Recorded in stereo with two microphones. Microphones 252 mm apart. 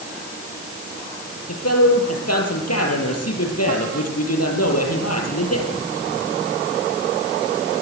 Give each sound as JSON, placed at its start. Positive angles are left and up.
{"t": 1.5, "sound": "a man speaking", "side_deg": 75, "distance_m": 6.0}